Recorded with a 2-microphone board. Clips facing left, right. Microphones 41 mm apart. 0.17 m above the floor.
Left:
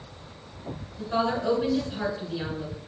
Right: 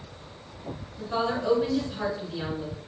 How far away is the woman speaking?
About 1.9 m.